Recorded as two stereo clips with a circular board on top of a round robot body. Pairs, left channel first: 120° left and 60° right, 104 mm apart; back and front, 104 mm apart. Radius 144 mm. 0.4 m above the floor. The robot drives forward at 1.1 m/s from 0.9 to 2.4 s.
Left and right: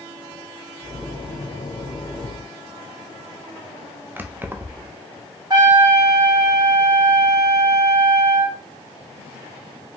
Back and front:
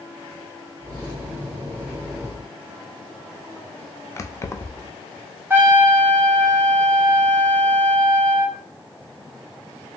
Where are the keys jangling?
125° right, 0.7 m.